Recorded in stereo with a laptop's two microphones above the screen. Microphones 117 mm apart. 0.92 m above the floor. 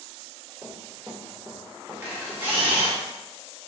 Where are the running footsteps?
20° right (ahead or behind), 1.9 m; by 3.0 s 30° left (ahead or behind), 1.4 m.